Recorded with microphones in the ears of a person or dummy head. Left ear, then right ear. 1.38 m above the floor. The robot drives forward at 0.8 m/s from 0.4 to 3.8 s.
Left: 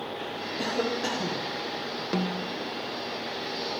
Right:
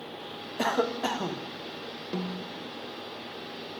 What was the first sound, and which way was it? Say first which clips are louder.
A cough: right 2 dB; 40° right (ahead or behind).